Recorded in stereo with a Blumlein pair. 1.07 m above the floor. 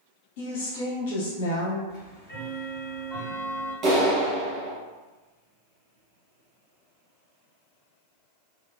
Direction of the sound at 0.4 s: 55° left.